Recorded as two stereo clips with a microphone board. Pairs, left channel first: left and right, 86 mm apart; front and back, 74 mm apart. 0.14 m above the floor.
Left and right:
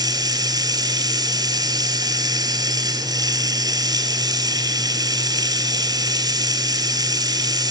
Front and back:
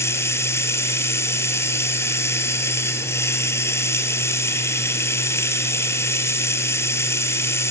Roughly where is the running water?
Ahead right.